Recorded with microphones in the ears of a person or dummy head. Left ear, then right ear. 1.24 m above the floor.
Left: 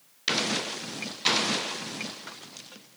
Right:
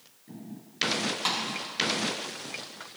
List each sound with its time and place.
1.2 s a snare drum: 30° right (ahead or behind), 1.4 m